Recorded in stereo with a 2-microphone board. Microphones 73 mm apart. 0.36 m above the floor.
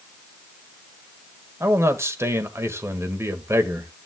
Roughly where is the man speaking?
Right.